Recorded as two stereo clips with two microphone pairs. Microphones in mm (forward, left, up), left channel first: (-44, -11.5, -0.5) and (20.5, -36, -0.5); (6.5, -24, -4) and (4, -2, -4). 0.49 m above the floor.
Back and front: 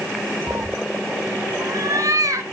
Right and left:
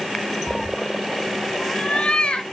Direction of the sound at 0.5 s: Straight ahead.